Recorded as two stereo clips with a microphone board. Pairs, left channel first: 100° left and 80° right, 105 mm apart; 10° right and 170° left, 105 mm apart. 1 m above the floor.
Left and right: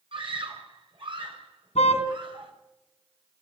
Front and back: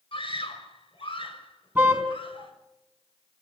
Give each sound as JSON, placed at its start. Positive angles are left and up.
{"t": 0.1, "sound": "a scream", "azimuth_deg": -45, "distance_m": 6.0}
{"t": 1.8, "sound": "a car horn", "azimuth_deg": 95, "distance_m": 4.0}